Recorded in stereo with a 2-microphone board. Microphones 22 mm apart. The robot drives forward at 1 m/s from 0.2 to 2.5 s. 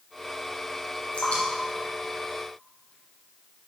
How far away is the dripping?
About 3 m.